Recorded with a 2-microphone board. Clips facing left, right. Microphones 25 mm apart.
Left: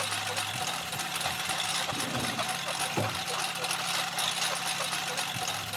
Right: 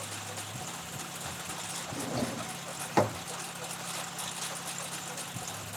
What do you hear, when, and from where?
0.0 s a lawn mower: 65° left (ahead or behind); by 5.8 s 55° left (ahead or behind)
1.9 s a drawer: 70° right (ahead or behind)